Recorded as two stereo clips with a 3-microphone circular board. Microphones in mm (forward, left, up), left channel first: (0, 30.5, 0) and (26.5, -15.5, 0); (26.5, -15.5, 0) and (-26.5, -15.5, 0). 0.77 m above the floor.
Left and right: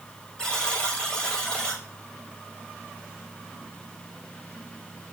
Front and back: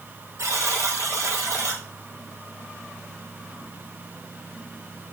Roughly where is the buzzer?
Behind.